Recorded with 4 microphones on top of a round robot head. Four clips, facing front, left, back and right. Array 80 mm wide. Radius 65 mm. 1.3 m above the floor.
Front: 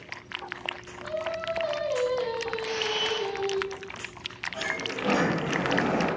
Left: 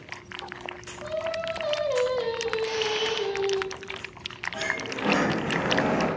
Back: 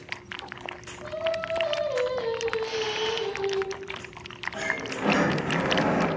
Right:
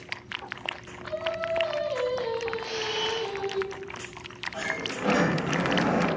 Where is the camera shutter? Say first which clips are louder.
Left 4 dB, back 1 dB; 30° left, 1.1 m.